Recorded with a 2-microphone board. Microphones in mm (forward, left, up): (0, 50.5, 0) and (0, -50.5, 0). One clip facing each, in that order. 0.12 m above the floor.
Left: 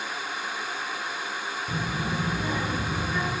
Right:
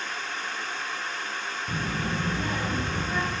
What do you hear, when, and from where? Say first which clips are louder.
1.7 s a child speaking: even; 15° right (ahead or behind), 0.8 m